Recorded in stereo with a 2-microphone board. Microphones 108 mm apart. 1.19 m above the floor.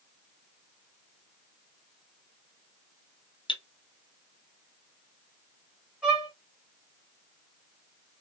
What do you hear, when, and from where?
3.5 s cutlery clinking: 50° left (ahead or behind), 0.7 m
6.0 s a violin: 10° right (ahead or behind), 1.0 m